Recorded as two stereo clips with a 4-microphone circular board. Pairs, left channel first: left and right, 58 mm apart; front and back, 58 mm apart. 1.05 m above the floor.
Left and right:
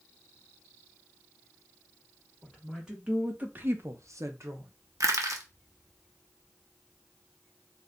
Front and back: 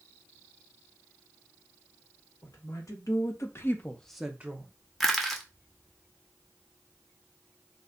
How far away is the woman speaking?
About 1.8 m.